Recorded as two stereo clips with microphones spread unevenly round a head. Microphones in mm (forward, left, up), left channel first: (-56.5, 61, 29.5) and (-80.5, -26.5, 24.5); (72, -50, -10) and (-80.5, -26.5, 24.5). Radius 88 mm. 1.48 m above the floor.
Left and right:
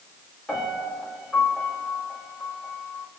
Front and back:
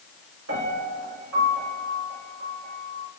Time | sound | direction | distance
0.5 | a piano | 155° left | 5 m